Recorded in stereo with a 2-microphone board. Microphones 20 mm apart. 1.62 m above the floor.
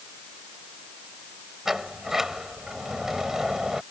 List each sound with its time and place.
1.6 s a sliding door: 25° right (ahead or behind)